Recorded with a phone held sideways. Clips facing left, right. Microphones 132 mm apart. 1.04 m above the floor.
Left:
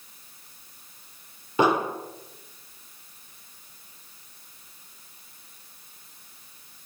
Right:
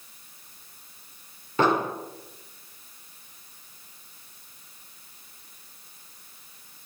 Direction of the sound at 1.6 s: 10° left (ahead or behind).